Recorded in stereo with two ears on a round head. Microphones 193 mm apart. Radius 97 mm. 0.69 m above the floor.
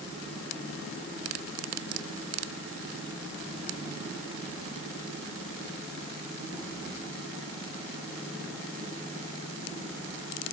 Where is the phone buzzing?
I don't hear a phone buzzing.